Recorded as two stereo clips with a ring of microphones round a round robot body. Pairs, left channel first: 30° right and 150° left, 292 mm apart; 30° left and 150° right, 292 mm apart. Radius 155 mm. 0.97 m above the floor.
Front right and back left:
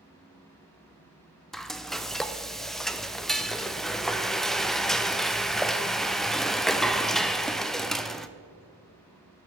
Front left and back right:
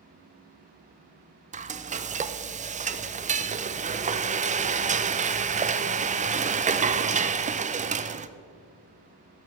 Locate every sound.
1.5 s frying: 120° right, 0.6 m